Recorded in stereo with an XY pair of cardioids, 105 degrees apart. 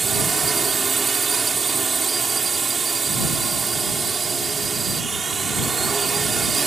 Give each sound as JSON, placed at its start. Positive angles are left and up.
{"t": 0.0, "sound": "a drone", "azimuth_deg": -35}